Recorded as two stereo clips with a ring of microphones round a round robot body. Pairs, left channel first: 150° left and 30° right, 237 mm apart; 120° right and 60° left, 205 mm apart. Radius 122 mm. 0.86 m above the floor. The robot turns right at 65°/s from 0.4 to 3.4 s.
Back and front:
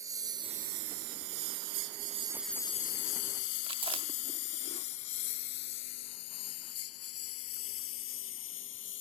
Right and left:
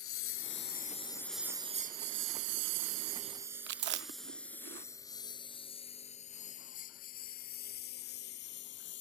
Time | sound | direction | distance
0.0 | a lawn mower | 110° right | ?
3.7 | chewing | 35° left | ?